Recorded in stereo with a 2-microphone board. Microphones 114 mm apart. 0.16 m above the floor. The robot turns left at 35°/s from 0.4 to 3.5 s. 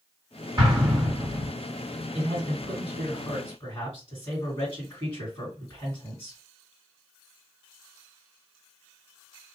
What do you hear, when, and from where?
0.6 s an explosion: 35° right (ahead or behind), 1.8 m; by 1.5 s 25° right (ahead or behind), 1.8 m
2.1 s a man speaking: 40° left (ahead or behind), 2 m; by 6.4 s 30° left (ahead or behind), 2 m